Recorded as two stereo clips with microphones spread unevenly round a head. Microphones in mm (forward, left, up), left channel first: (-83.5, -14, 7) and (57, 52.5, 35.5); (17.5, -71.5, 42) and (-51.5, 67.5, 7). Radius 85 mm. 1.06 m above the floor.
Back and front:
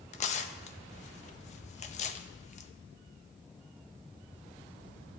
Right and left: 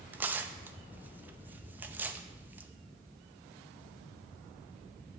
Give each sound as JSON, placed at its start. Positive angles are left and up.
{"t": 0.1, "sound": "tearing paper", "azimuth_deg": -175, "distance_m": 0.5}